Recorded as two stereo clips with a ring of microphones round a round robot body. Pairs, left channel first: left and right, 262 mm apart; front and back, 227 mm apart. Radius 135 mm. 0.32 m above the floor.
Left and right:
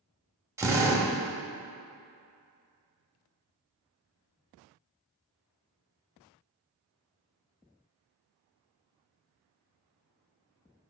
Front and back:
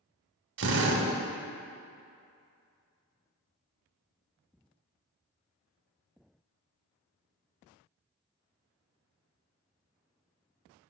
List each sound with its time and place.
0.6 s a drill: 165° right, 1.1 m